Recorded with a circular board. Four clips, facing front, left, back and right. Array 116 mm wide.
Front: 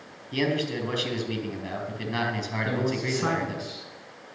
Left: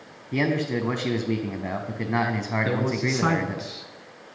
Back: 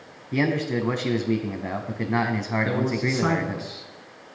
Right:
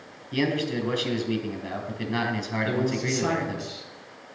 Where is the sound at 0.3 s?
140° left, 1.3 m.